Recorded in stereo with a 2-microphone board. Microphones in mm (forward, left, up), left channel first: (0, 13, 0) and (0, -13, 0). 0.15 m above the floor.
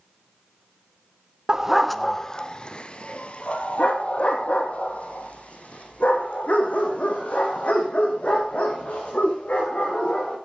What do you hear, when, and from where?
1.5 s a dog barking: 25° right (ahead or behind), 0.7 m; by 10.3 s 70° left (ahead or behind), 8 m